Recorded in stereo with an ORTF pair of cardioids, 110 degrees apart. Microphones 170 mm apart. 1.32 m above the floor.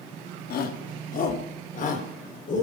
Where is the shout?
60° left, 2.5 m; by 2.6 s 50° left, 5 m.